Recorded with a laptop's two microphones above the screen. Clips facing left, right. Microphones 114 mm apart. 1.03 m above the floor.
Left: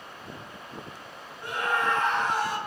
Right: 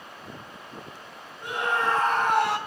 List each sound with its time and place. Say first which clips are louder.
1.4 s a scream: right 1 dB; 15° right (ahead or behind), 1.5 m; by 2.6 s 70° right (ahead or behind), 0.8 m